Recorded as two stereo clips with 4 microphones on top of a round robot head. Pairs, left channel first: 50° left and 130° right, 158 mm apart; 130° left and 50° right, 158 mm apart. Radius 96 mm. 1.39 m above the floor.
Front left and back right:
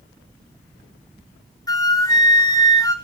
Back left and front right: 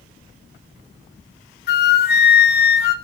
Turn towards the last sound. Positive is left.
turn(degrees=115)